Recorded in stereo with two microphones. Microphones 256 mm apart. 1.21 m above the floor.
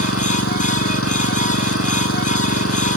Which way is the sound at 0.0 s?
60° left (ahead or behind).